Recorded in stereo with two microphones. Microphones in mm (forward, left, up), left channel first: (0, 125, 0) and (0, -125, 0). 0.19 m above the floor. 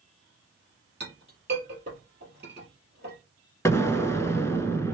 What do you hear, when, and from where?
1.0 s a clink: 40° right (ahead or behind), 3 m
3.6 s an explosion: 10° left (ahead or behind), 0.6 m